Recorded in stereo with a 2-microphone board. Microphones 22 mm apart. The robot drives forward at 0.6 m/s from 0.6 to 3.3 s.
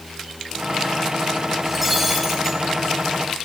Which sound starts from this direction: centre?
Breaking glass, at 1.6 s.